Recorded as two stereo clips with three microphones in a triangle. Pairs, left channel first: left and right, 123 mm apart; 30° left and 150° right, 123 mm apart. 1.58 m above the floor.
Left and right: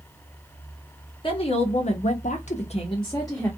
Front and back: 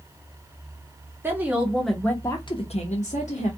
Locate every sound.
1.2 s a woman speaking: 135° left, 1.0 m; by 3.5 s 25° left, 0.9 m